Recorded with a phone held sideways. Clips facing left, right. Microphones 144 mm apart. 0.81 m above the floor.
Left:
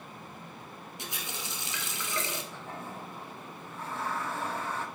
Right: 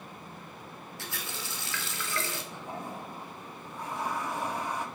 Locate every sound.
1.0 s a running tap: 20° left (ahead or behind), 1.0 m
2.5 s a toilet flushing: 15° right (ahead or behind), 0.8 m